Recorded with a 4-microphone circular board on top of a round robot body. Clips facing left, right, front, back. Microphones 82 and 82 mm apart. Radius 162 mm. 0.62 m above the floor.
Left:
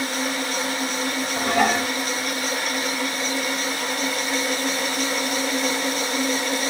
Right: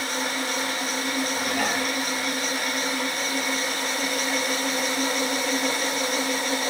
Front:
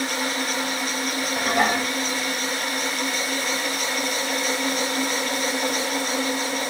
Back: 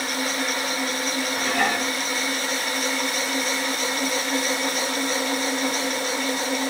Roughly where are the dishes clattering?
Ahead left.